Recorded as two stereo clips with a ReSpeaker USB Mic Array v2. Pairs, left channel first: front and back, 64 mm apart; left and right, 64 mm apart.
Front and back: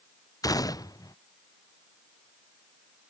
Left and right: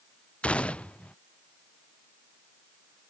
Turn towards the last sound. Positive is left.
turn(degrees=20)